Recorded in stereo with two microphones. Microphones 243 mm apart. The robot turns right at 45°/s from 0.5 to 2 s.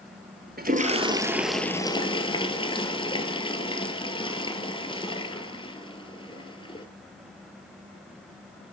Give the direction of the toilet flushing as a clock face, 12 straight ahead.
1 o'clock.